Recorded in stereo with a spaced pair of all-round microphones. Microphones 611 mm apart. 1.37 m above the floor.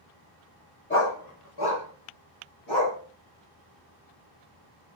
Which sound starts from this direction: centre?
A dog barking, at 0.9 s.